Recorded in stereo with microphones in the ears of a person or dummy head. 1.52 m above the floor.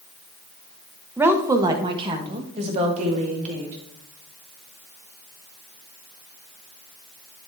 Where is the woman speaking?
15° right (ahead or behind), 0.9 m; by 3.8 s 45° right (ahead or behind), 2 m.